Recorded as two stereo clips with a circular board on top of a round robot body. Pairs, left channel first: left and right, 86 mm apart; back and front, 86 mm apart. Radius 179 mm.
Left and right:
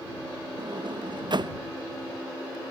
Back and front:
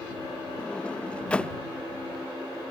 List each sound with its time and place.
0.6 s a sliding door: 105° right